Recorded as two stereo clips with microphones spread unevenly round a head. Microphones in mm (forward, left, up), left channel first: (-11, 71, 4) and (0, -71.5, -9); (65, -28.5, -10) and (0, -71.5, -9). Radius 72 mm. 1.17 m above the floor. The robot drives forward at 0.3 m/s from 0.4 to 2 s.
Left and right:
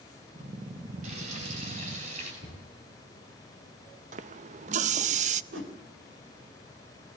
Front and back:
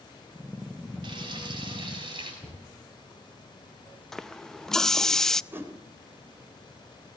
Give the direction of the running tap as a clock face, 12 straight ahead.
2 o'clock.